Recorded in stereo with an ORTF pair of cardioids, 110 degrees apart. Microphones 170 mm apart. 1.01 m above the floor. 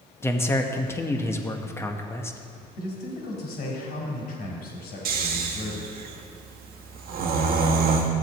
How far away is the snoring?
About 1.3 m.